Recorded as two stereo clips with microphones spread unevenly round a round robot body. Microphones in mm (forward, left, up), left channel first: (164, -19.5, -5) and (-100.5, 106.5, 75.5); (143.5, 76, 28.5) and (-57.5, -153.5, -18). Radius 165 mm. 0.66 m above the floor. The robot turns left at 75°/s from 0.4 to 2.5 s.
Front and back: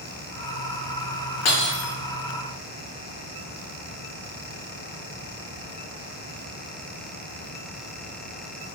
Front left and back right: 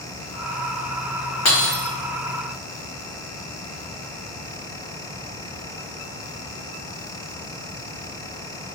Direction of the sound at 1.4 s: 15° left.